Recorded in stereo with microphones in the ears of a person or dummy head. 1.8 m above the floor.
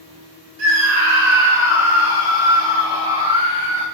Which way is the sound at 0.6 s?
85° right.